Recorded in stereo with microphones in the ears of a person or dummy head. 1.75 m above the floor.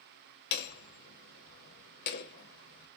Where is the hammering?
55° left (ahead or behind), 0.8 m.